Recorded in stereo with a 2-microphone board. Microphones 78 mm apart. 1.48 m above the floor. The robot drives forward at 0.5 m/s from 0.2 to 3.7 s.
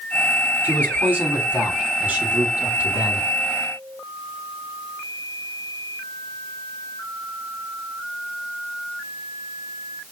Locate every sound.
0.6 s a man speaking: 25° right (ahead or behind), 5.5 m; by 3.3 s 20° right (ahead or behind), 6.5 m